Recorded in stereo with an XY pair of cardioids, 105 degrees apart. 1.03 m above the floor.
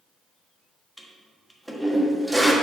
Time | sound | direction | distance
1.0 | a toilet flushing | 5° right | 1.0 m